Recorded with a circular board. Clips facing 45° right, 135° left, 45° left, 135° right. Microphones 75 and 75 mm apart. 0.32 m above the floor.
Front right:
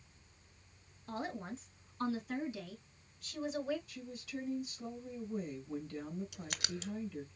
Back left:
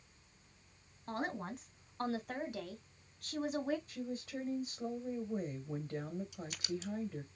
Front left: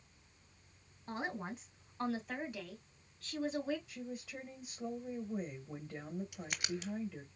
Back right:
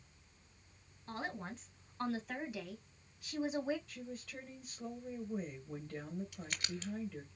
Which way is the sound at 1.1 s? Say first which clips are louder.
Back left 2 dB, front left 2 dB; 115° left.